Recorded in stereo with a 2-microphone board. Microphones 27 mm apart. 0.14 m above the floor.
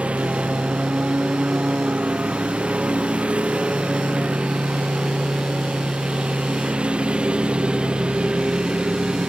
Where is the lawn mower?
45° right (ahead or behind); by 9.3 s 35° right (ahead or behind).